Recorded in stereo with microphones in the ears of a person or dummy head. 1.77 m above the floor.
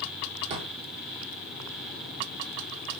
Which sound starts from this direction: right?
A drawer, at 0.5 s.